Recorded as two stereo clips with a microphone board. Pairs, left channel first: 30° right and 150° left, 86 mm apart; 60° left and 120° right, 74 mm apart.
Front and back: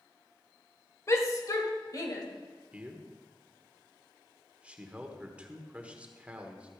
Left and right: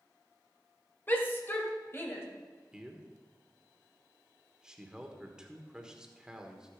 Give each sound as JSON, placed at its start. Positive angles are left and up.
{"t": 1.1, "sound": "a shout", "azimuth_deg": 10, "distance_m": 1.5}
{"t": 2.7, "sound": "a man speaking", "azimuth_deg": -175, "distance_m": 1.3}